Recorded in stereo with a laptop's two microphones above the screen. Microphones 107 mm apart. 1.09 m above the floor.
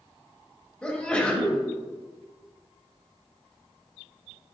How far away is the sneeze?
About 2.5 m.